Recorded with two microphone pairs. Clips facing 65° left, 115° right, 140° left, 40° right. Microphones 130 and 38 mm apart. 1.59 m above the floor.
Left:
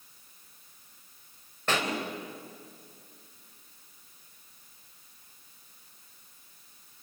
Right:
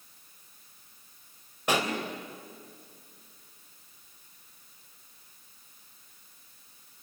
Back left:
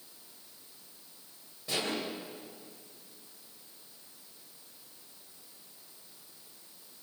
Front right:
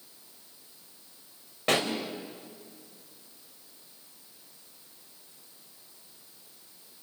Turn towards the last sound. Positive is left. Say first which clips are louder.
# right 2 dB, front right 8 dB
turn(degrees=-40)